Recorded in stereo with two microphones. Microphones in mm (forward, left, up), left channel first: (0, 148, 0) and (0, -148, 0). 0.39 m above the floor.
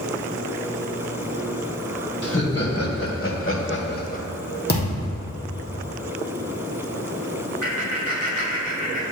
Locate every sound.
2.2 s laughter: 55° left (ahead or behind), 2.0 m; by 4.2 s 25° left (ahead or behind), 0.8 m
4.7 s a thud: 35° left (ahead or behind), 2.5 m
7.6 s laughter: 55° left (ahead or behind), 2.5 m